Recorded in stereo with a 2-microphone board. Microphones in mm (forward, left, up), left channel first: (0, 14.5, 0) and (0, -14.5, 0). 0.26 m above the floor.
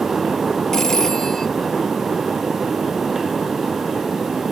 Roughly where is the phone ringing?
Centre.